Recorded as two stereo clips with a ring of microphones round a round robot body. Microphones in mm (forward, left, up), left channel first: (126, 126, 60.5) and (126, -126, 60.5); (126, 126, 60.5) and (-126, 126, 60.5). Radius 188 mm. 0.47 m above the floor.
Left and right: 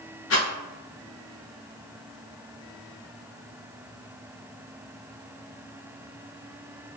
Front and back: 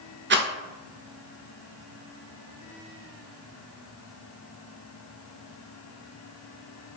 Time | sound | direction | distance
0.3 | a rattle | 130° left | 0.7 m